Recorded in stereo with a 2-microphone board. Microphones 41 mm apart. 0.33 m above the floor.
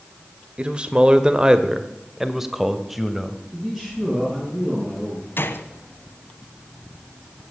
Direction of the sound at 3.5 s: 15° right (ahead or behind).